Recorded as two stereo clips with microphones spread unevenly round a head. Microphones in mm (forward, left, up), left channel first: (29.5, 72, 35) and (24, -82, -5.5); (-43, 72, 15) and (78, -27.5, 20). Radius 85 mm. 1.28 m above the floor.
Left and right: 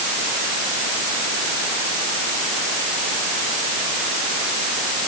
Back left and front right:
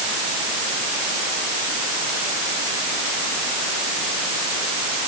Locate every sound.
Only background noise.